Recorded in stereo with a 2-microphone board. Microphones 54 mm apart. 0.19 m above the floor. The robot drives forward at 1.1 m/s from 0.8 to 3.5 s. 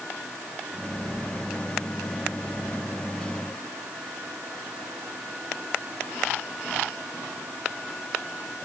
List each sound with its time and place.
Only background noise.